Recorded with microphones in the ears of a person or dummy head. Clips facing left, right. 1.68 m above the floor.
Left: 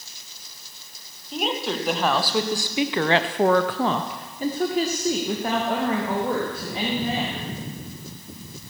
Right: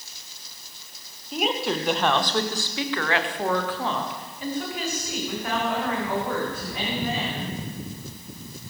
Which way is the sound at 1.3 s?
5° right (ahead or behind).